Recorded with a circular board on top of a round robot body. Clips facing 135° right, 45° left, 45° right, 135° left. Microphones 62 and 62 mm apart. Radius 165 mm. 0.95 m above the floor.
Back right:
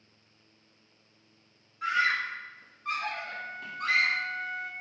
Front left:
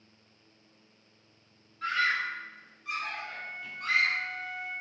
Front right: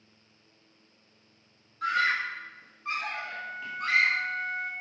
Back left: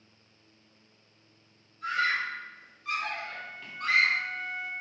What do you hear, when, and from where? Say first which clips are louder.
1.8 s a scream: back right 1 dB, front right 2 dB; 55° right, 1.9 m; by 4.1 s 135° right, 3 m
3.1 s a flute: back right 2 dB, front right 3 dB; 90° right, 1.0 m